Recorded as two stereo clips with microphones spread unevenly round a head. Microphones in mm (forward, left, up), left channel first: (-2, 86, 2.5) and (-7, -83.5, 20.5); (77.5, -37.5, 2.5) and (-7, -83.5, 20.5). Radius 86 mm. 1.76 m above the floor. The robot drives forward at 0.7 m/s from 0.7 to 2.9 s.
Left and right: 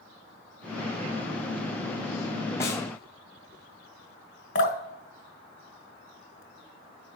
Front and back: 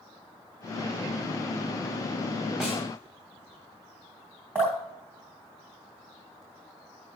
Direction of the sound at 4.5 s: 135° left.